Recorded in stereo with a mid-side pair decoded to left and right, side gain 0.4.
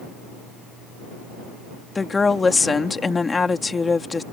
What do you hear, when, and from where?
1.9 s a woman speaking: 35° left